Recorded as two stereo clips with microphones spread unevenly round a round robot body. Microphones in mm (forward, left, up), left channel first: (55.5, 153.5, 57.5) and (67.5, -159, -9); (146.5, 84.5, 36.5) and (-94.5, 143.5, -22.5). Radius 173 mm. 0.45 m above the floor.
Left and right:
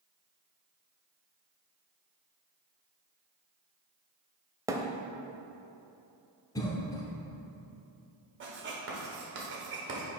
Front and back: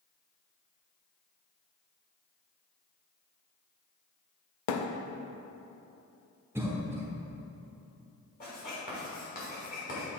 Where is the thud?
10° right, 0.6 m.